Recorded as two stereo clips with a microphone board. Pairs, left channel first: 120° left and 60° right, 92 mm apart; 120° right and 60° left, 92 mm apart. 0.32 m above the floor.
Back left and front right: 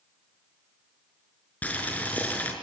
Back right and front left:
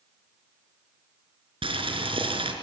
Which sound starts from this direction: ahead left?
Boiling, at 1.6 s.